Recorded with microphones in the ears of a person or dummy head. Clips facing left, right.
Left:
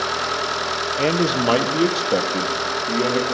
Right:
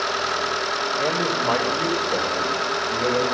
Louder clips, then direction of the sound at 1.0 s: Left 6 dB; 40° left (ahead or behind).